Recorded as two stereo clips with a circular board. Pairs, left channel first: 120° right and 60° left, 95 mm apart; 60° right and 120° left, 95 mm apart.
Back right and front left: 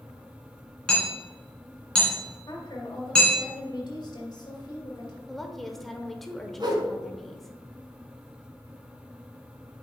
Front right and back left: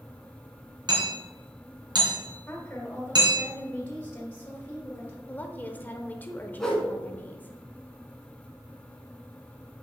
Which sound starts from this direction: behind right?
A woman speaking, at 2.5 s.